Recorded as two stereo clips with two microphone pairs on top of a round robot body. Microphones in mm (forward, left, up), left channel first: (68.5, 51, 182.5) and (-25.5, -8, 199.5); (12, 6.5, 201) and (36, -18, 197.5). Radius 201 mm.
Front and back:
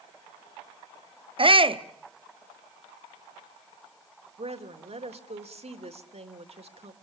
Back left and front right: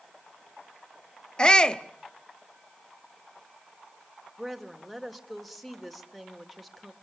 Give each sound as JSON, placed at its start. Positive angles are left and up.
{"t": 1.4, "sound": "a shout", "azimuth_deg": -160, "distance_m": 1.3}
{"t": 4.4, "sound": "a woman speaking", "azimuth_deg": -130, "distance_m": 2.5}